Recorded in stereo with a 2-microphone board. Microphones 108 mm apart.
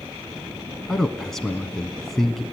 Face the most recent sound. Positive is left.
turn(degrees=5)  # may be behind; listen again after turning